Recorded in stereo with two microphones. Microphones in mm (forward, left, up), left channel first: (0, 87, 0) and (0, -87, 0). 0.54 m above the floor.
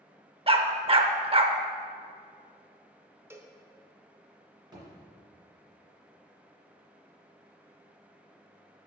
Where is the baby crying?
I don't hear a baby crying.